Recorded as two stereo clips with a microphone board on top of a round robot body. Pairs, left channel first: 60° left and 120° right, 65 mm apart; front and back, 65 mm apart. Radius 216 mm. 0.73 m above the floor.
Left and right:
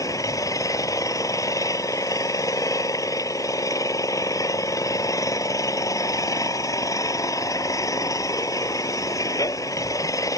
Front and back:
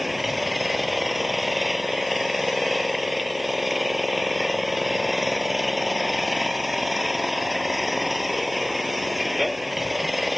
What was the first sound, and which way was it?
An engine running, 90° left.